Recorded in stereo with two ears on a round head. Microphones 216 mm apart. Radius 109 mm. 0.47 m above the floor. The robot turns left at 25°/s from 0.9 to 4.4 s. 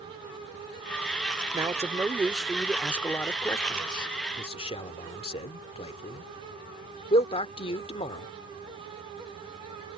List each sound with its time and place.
1.5 s a man speaking: 15° right (ahead or behind); by 8.3 s 25° left (ahead or behind)